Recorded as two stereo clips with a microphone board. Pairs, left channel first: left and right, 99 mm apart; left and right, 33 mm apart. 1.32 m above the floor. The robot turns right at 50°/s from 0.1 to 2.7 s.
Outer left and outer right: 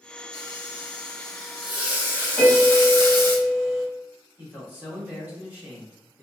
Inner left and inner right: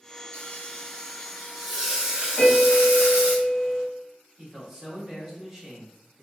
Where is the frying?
115° left, 1.8 m; by 3.4 s 125° right, 1.8 m.